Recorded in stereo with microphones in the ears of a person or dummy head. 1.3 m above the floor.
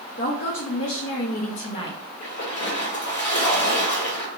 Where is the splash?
40° left (ahead or behind), 1.4 m.